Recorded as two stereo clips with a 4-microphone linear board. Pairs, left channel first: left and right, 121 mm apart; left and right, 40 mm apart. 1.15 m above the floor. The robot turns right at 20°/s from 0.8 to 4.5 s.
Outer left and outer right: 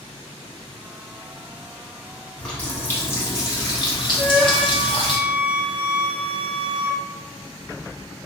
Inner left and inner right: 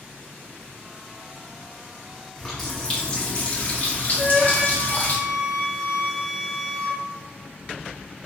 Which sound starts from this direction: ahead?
A running tap, at 2.4 s.